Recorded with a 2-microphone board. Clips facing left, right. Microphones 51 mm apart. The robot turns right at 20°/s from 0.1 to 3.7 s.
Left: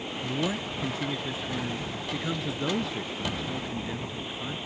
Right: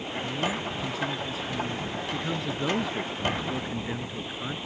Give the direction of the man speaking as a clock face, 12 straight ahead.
8 o'clock.